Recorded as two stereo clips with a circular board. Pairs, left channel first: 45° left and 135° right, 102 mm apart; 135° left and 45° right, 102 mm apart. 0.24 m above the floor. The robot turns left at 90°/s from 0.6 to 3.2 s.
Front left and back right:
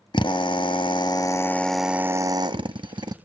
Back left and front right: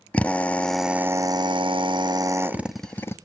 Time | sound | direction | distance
0.1 | a drill | 60° left | 0.5 m